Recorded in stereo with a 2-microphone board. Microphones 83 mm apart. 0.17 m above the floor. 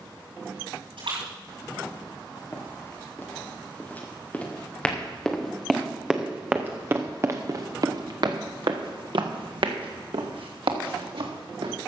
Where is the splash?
80° right, 6 m.